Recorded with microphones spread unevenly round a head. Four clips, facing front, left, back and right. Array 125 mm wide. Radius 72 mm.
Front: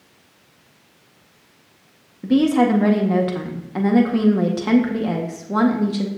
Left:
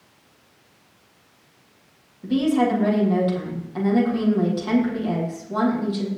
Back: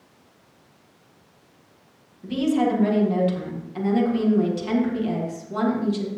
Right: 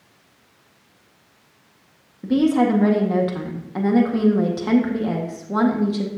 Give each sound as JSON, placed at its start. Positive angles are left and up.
{"t": 2.2, "sound": "a woman speaking", "azimuth_deg": -30, "distance_m": 1.8}